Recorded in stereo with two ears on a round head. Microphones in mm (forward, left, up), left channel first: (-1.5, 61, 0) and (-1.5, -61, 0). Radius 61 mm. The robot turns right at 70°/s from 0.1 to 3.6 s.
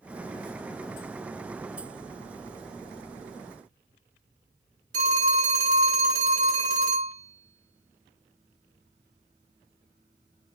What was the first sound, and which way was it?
A phone ringing, 65° right (ahead or behind).